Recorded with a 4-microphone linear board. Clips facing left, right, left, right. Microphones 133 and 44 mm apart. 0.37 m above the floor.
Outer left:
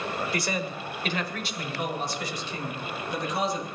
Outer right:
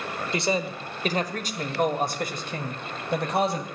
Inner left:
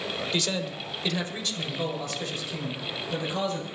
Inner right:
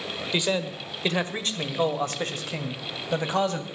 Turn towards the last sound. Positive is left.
turn(degrees=-60)  # may be behind; listen again after turning